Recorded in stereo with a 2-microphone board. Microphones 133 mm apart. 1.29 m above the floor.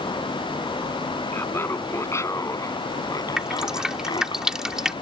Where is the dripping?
5° right (ahead or behind).